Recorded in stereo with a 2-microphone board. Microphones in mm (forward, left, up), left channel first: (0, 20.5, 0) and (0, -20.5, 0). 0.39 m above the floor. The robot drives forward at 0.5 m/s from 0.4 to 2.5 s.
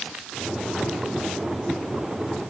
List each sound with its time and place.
Only background noise.